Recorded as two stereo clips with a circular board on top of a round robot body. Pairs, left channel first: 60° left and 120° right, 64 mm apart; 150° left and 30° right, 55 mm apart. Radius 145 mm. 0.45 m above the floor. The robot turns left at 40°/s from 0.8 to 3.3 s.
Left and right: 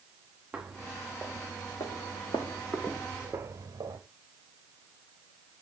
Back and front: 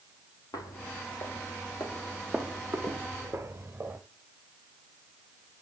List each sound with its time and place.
0.5 s footsteps: 160° left, 1.3 m; by 4.0 s 80° right, 1.1 m